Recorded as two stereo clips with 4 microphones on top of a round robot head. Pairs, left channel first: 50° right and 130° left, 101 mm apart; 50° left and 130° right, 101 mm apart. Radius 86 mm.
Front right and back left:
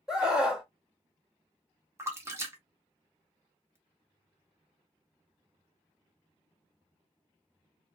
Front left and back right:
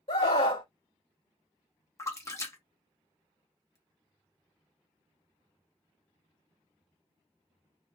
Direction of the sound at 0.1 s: 50° left.